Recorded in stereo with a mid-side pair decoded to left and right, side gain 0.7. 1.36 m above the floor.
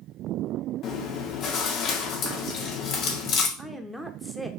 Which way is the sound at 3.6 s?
Straight ahead.